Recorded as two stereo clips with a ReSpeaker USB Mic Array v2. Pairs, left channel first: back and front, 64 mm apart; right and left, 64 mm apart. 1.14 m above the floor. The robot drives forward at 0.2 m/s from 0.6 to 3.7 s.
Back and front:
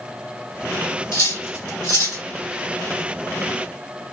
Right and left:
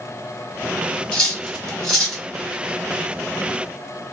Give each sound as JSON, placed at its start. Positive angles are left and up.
{"t": 1.1, "sound": "cutlery clinking", "azimuth_deg": -165, "distance_m": 1.4}